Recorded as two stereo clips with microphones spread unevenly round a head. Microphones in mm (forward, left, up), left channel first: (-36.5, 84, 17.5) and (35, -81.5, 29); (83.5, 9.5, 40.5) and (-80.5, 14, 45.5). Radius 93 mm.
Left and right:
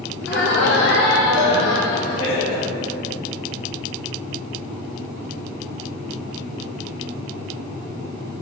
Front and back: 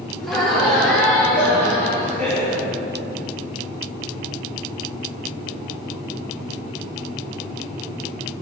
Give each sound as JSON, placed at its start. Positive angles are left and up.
{"t": 0.2, "sound": "laughter", "azimuth_deg": 85, "distance_m": 2.5}